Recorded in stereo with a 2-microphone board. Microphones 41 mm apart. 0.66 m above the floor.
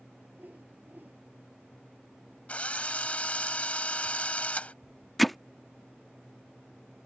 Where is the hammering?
Centre (ahead or behind).